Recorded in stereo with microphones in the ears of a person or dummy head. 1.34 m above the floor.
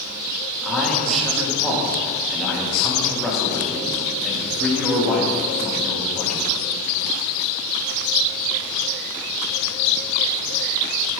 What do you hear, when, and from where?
0.6 s a man speaking: centre (ahead or behind), 1.8 m